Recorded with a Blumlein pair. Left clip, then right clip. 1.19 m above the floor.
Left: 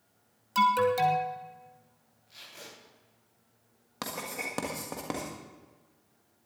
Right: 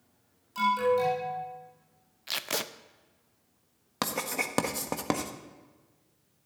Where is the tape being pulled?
45° right, 0.7 m.